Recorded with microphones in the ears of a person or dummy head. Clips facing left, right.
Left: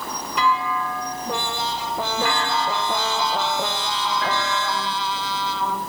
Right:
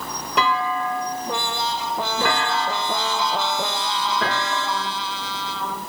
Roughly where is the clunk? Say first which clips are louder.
Right 1 dB; right.